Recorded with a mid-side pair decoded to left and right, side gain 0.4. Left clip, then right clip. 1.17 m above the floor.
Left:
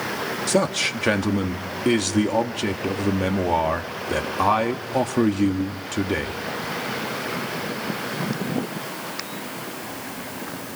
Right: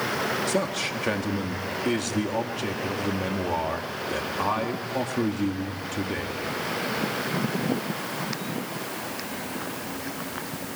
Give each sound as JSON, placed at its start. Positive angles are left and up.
{"t": 0.5, "sound": "a man speaking", "azimuth_deg": 50, "distance_m": 1.9}